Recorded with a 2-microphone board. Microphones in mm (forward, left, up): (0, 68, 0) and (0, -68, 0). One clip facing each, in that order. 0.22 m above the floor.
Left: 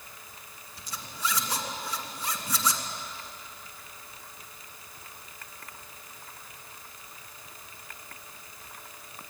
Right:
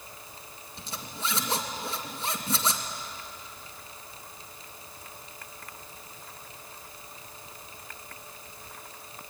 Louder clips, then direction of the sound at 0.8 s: Left 1 dB; 25° right (ahead or behind).